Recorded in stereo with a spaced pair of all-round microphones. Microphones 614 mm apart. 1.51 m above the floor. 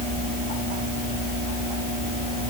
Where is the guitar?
No guitar in this recording.